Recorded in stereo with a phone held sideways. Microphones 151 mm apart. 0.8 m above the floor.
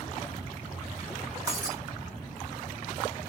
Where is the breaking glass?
20° right (ahead or behind), 4 m.